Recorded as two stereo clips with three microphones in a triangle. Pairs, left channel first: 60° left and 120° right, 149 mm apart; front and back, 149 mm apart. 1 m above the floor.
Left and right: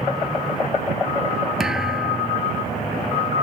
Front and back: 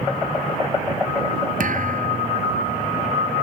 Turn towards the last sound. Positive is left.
turn(degrees=155)